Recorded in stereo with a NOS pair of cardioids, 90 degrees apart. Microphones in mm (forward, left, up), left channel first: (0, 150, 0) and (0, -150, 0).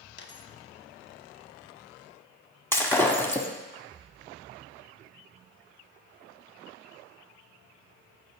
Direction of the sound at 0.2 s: 40° left.